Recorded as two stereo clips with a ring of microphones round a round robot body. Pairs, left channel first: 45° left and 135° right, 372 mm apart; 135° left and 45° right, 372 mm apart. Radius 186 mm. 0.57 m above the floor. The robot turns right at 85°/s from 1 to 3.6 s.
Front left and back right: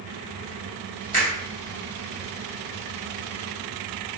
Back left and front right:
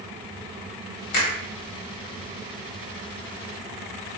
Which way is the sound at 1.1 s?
110° left.